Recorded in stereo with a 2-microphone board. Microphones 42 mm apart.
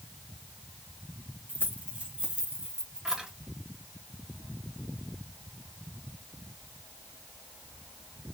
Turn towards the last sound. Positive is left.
turn(degrees=-10)  # may be behind; listen again after turning